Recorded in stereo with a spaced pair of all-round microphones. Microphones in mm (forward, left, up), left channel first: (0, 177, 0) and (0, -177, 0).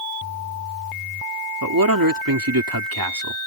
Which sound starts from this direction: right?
A man speaking, at 1.6 s.